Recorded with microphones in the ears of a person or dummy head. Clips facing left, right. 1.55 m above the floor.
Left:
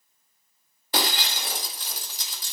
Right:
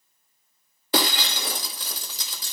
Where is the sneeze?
I don't hear a sneeze.